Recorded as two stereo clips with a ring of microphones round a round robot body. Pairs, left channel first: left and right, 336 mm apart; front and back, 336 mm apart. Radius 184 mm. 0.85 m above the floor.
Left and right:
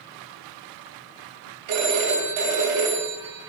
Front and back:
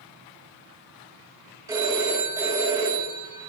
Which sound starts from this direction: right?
A phone ringing, at 1.7 s.